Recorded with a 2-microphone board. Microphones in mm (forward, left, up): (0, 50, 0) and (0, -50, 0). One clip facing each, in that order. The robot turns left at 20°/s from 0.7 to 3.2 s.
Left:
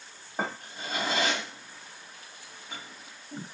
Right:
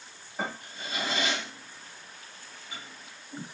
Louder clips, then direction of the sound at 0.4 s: Left 2 dB; 45° left (ahead or behind).